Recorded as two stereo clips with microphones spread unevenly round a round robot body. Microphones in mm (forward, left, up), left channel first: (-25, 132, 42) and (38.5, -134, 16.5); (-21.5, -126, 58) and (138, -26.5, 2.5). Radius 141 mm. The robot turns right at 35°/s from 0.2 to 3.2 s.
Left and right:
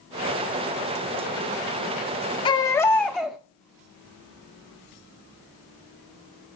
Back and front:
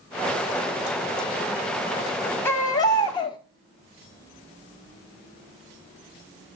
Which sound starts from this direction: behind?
A baby crying, at 2.5 s.